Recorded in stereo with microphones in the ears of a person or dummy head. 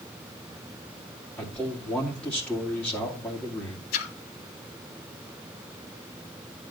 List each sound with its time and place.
1.4 s a man speaking: 15° left (ahead or behind), 2.0 m
3.9 s a splash: 50° left (ahead or behind), 1.5 m